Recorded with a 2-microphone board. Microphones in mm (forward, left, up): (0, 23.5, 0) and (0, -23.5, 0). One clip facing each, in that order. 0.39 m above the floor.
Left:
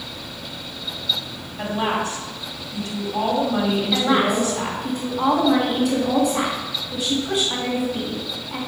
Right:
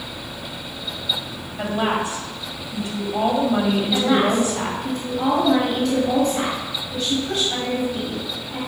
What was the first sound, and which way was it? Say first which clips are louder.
A woman speaking: right 1 dB; 20° right (ahead or behind).